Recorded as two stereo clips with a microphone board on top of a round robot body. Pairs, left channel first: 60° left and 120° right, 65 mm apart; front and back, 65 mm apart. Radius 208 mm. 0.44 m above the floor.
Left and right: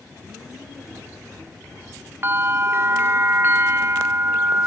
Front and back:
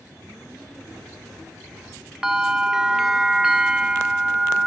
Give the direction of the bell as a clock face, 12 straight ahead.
3 o'clock.